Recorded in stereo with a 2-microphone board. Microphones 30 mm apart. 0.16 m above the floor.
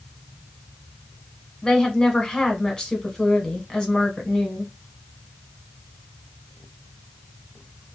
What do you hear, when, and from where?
1.6 s a woman speaking: 25° left (ahead or behind), 1.1 m